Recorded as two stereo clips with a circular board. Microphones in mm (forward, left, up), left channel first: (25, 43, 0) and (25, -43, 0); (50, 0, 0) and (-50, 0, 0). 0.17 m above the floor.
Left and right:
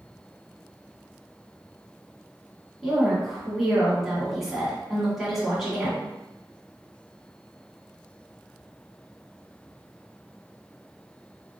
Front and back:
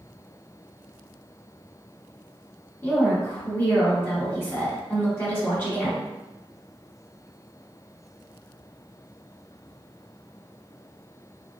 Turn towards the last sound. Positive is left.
turn(degrees=-10)